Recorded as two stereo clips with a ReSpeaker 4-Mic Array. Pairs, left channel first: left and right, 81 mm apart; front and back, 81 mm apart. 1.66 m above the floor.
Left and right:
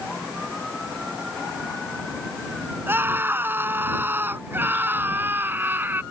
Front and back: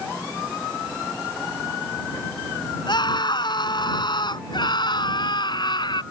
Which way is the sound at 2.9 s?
25° right.